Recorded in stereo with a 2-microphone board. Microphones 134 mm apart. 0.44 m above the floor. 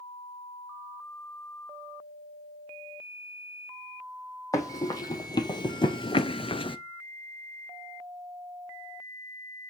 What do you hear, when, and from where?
4.5 s running footsteps: 25° left (ahead or behind), 1.3 m; by 6.8 s 40° left (ahead or behind), 0.5 m